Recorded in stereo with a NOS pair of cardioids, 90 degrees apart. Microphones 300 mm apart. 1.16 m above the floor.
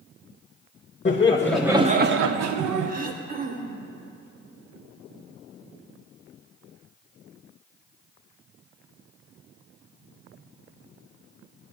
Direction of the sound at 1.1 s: 25° left.